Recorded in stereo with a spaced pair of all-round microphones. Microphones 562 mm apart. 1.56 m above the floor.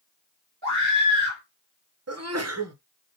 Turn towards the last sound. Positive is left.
turn(degrees=-25)  # may be behind; listen again after turning